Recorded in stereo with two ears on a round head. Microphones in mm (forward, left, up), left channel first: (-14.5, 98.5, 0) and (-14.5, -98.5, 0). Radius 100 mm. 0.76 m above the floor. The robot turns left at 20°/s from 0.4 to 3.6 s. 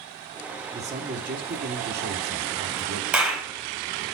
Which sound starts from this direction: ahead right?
A man speaking, at 0.7 s.